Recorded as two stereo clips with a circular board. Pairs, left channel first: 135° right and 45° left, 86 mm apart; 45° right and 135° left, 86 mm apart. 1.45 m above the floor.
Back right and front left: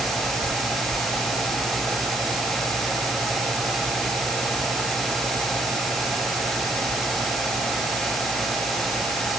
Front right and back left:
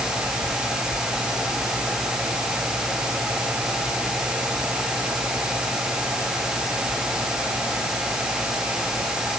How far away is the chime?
I don't hear a chime.